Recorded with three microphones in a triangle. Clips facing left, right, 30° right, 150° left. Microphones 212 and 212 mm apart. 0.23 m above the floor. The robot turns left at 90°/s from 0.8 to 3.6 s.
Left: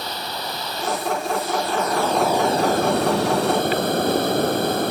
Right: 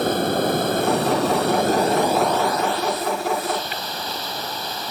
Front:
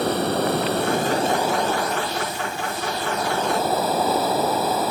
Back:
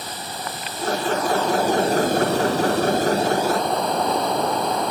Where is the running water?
55° right; by 4.9 s 55° left.